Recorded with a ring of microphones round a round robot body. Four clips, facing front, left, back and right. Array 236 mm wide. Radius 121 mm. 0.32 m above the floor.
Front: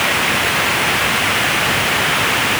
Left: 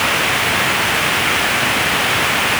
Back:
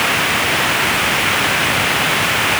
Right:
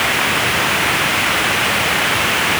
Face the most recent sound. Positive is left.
No sound to turn to.